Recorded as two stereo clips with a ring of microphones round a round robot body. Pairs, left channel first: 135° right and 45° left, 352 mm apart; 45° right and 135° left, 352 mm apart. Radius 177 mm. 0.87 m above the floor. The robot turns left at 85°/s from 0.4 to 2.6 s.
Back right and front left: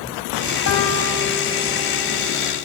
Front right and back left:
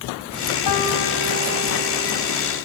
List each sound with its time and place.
0.7 s a piano: 85° right, 3.5 m; by 2.1 s 150° left, 3.5 m